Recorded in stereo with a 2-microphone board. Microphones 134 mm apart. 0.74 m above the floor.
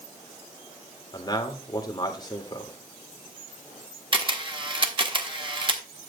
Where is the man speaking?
30° left (ahead or behind), 1.9 m.